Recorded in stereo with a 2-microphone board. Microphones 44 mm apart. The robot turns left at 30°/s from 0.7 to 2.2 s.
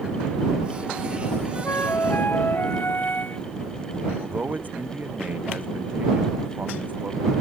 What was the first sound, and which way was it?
A flute, 65° left (ahead or behind).